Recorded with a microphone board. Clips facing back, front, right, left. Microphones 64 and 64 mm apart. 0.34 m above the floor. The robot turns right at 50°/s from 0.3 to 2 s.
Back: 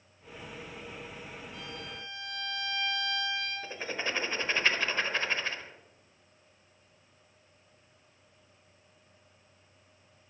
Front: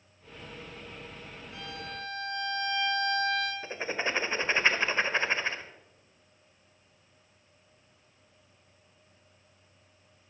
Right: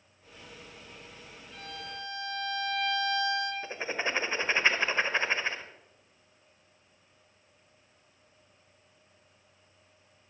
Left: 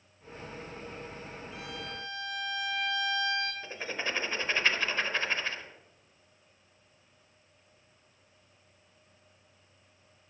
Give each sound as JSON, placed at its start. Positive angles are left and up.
{"t": 1.5, "sound": "a violin", "azimuth_deg": 10, "distance_m": 4.0}
{"t": 3.6, "sound": "writing", "azimuth_deg": -40, "distance_m": 1.1}